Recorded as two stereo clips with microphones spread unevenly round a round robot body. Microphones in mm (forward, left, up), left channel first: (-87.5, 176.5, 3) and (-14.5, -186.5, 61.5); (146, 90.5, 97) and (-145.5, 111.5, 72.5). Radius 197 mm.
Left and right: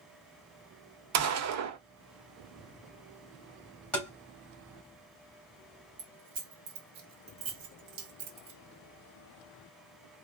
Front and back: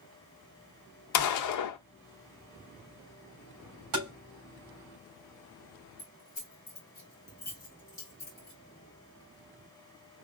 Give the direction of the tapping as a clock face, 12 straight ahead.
6 o'clock.